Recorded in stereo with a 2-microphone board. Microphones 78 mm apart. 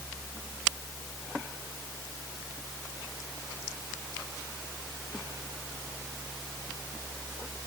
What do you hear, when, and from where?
Only background noise.